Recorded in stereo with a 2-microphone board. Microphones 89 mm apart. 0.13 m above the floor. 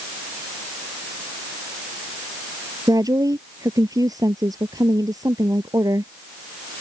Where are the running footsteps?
I don't hear running footsteps.